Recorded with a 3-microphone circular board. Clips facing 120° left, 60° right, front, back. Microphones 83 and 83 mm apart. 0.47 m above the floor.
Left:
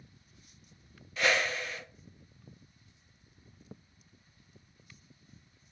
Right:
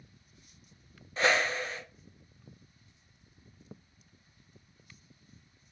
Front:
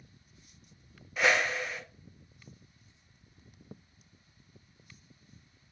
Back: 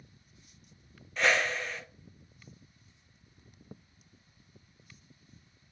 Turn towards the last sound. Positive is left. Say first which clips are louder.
# right 2 dB, front 1 dB
turn(degrees=-80)